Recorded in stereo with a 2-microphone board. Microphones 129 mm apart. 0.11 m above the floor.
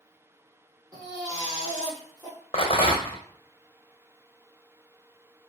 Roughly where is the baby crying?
Right.